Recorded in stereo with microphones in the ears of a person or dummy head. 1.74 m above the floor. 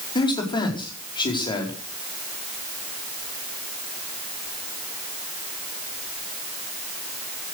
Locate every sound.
0.1 s a man speaking: 25° left (ahead or behind), 4.5 m